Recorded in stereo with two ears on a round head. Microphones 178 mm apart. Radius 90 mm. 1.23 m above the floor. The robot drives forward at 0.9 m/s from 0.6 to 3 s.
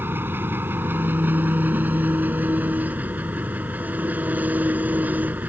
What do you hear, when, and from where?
0.0 s an engine running: 10° right (ahead or behind)